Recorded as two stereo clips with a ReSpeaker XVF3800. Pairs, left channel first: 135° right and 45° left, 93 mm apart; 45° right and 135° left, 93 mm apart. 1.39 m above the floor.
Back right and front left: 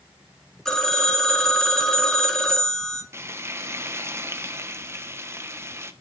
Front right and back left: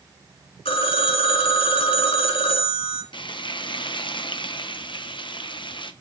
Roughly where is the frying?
Ahead.